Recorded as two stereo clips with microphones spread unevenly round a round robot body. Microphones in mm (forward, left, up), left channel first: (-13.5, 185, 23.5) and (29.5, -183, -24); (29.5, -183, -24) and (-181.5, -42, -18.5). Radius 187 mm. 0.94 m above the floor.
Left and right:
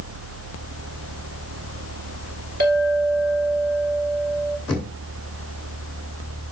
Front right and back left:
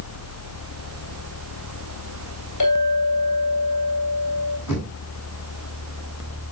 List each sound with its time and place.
2.6 s a clink: 15° right, 2 m
4.7 s knocking: 5° left, 3 m